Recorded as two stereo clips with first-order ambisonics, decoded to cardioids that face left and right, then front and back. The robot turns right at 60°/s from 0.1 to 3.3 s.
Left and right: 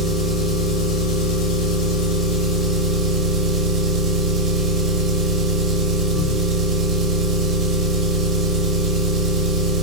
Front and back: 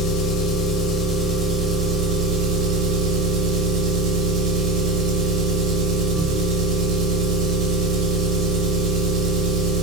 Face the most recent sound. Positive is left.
turn(degrees=-160)